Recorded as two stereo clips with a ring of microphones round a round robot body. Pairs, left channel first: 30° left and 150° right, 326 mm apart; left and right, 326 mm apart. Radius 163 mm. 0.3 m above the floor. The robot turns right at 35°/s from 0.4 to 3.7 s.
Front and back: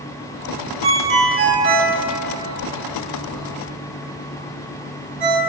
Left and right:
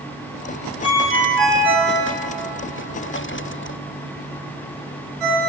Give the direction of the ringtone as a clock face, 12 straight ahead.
7 o'clock.